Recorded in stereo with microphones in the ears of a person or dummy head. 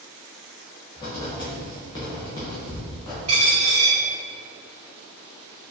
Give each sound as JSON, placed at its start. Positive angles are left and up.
{"t": 1.0, "sound": "writing", "side_deg": 20, "distance_m": 0.8}
{"t": 3.3, "sound": "a dropped coin", "side_deg": -40, "distance_m": 1.9}